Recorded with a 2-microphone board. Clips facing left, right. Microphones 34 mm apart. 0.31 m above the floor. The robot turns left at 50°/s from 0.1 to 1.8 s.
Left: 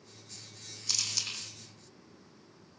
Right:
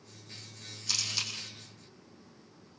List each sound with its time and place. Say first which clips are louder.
0.9 s a camera shutter: right 2 dB; 5° right (ahead or behind), 8.5 m; by 1.3 s 30° right (ahead or behind), 8.5 m